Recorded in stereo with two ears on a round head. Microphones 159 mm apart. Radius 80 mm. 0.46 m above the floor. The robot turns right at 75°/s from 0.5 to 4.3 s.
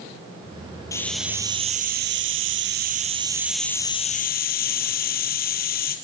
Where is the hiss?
160° left, 2.5 m; by 6.0 s 55° left, 2.5 m.